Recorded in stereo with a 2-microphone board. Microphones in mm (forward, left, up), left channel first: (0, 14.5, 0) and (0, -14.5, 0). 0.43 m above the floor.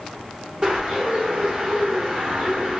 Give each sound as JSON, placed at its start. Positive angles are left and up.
{"t": 0.6, "sound": "a bird", "side_deg": -30, "distance_m": 1.3}